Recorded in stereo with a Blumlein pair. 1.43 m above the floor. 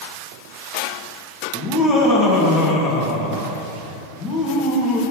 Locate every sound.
1.5 s laughter: 30° left, 1.8 m